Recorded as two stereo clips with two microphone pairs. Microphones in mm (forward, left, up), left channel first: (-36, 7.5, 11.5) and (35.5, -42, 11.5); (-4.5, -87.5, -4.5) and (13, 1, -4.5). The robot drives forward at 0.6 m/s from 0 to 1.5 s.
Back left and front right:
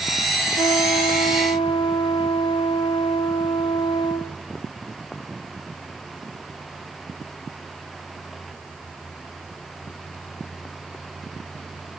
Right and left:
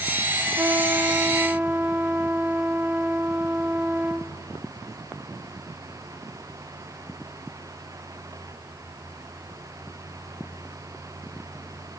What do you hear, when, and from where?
0.6 s a trumpet: 140° left, 1.5 m; by 4.3 s 150° left, 2 m